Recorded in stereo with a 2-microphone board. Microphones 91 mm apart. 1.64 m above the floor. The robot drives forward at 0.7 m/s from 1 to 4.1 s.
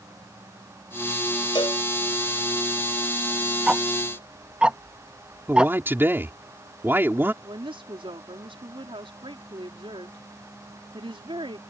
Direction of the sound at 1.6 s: 60° left (ahead or behind).